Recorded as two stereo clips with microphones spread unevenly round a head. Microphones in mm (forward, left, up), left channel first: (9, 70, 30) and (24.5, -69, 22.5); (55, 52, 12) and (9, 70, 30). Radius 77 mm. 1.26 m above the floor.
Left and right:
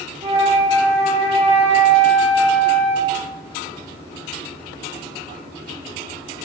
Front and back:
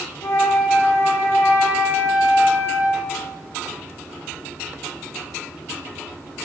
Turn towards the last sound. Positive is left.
turn(degrees=-40)